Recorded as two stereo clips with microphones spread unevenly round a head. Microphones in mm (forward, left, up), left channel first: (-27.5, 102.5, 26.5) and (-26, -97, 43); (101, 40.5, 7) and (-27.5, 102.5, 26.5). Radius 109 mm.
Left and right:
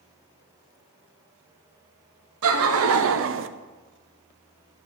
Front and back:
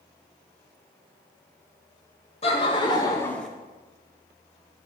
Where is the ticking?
I don't hear ticking.